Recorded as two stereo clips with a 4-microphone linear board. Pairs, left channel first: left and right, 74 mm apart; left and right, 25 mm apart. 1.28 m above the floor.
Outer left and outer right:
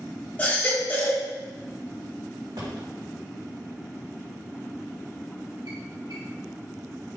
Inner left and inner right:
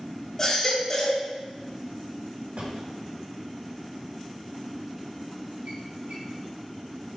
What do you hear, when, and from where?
0.4 s a baby crying: 25° left (ahead or behind), 2.5 m
2.6 s a drawer: 80° right, 2.5 m